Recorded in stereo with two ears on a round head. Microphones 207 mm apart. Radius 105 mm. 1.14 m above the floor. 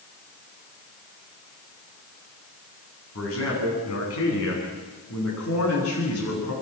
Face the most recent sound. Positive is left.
turn(degrees=80)